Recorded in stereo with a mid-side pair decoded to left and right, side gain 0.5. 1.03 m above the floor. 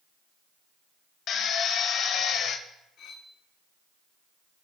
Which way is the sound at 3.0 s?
65° left.